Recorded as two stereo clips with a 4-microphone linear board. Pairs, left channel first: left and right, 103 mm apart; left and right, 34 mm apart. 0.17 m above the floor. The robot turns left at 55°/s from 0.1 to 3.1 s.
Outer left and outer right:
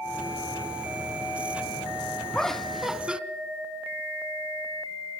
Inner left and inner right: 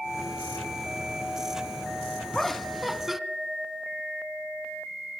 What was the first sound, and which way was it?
Laughter, 10° left (ahead or behind).